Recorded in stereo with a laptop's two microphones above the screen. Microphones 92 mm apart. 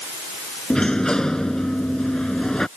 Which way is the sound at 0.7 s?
5° left (ahead or behind).